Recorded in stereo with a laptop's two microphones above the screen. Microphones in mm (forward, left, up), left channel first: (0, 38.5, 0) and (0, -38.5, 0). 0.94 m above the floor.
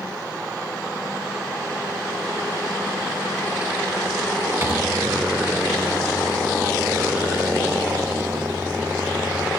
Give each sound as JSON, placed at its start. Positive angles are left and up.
{"t": 4.6, "sound": "a microwave", "side_deg": -30, "distance_m": 1.4}